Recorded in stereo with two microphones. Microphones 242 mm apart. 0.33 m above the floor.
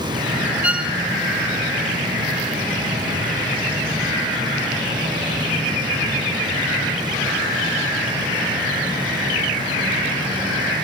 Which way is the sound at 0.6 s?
5° right (ahead or behind).